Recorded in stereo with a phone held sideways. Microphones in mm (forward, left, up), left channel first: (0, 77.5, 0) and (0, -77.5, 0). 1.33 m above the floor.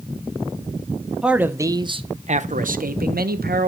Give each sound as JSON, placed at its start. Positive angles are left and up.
{"t": 1.2, "sound": "a man speaking", "side_deg": -5, "distance_m": 0.8}